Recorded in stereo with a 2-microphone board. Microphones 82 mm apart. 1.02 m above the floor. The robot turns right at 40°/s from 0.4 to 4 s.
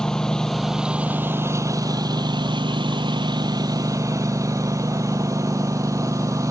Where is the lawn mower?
170° left; by 6.5 s 45° right.